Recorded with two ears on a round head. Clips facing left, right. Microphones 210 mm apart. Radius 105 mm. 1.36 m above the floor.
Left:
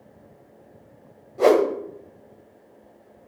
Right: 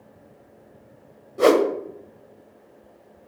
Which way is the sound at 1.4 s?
20° right (ahead or behind).